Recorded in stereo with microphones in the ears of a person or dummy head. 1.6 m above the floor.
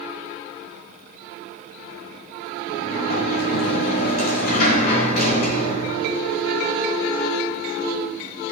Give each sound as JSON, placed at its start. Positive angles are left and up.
{"t": 2.7, "sound": "a sliding door", "side_deg": 50, "distance_m": 1.3}